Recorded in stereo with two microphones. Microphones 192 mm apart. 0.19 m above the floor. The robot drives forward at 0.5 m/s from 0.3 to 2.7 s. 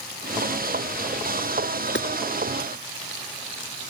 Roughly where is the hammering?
Left.